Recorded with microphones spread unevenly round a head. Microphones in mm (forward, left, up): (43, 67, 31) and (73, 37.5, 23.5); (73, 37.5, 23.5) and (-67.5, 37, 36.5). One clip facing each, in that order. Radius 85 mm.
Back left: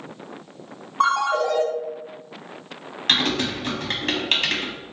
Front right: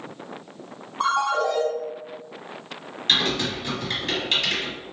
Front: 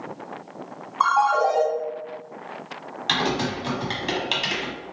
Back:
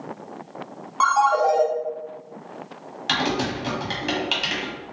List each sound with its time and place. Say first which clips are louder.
1.0 s a ringtone: back left 2 dB, back 1 dB; 175° right, 1.6 m
3.1 s typing on a keyboard: back left 1 dB, back 1 dB; 100° left, 1.0 m